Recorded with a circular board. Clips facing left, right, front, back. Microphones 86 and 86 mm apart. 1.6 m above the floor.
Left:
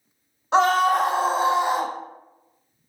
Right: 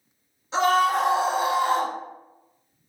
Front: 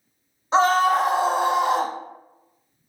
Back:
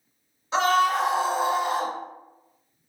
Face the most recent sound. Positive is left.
turn(degrees=0)